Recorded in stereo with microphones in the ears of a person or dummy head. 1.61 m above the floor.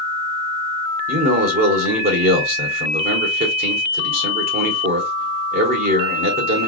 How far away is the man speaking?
About 1.5 m.